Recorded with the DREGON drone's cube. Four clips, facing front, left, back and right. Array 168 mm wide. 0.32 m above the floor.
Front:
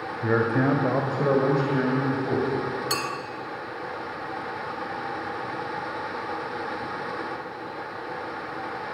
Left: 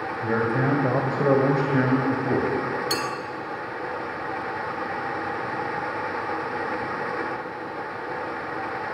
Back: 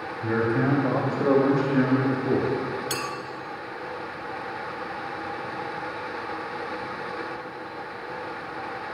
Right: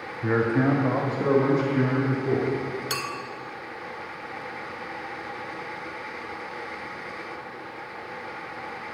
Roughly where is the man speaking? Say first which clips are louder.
Right 2 dB, front 1 dB; ahead.